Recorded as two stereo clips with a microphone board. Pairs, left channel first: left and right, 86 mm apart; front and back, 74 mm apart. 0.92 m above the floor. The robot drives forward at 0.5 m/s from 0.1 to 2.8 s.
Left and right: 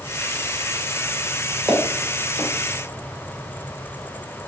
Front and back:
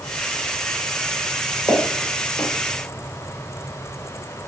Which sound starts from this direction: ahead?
Footsteps, at 1.7 s.